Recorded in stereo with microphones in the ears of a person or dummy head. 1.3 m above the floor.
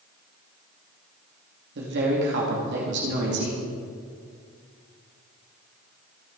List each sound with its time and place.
1.8 s a woman speaking: 55° right (ahead or behind), 2.5 m